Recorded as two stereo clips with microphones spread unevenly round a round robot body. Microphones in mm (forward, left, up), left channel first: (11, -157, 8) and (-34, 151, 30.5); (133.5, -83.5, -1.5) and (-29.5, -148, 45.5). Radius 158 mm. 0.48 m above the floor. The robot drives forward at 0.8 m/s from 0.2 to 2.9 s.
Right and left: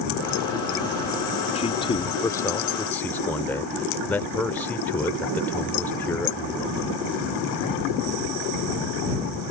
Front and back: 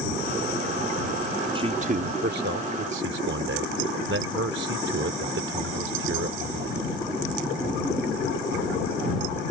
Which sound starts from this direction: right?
A man speaking, at 1.6 s.